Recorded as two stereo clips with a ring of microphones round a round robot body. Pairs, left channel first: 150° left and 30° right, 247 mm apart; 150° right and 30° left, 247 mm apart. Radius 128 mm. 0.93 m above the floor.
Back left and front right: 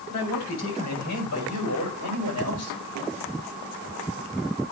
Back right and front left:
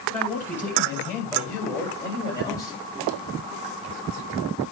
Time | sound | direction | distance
0.1 | a man speaking | 125° left | 6.5 m